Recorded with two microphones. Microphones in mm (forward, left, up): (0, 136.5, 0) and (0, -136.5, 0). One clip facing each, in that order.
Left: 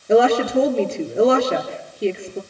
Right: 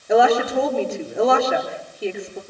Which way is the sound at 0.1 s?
30° left (ahead or behind).